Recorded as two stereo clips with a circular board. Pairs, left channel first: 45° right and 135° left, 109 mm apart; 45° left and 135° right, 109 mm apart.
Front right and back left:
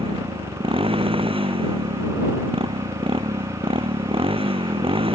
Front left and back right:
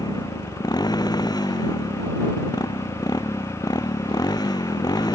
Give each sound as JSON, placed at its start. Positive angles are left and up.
{"t": 0.0, "sound": "a motorcycle", "azimuth_deg": 100}